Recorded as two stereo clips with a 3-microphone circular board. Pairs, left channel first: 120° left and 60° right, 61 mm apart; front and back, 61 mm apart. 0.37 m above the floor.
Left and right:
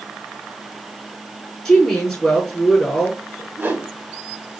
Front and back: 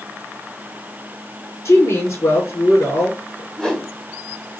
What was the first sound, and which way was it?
A woman speaking, 30° left.